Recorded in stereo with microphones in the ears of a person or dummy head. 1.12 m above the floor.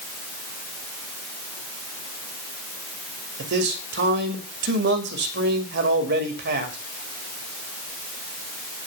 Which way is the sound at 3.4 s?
55° right (ahead or behind).